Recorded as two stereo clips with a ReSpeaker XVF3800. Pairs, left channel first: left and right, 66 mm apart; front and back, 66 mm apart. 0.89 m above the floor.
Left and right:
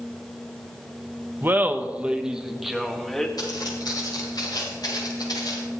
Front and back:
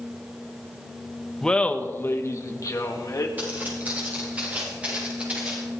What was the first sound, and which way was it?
Laughter, 75° right.